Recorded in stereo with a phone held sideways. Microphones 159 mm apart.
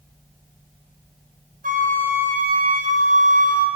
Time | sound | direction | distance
1.6 | a flute | 55° right (ahead or behind) | 0.5 m